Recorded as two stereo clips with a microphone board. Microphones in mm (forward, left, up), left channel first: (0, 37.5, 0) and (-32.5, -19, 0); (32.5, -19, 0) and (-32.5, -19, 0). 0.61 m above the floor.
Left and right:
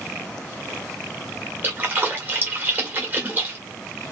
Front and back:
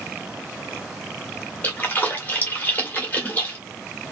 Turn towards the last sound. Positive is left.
turn(degrees=-65)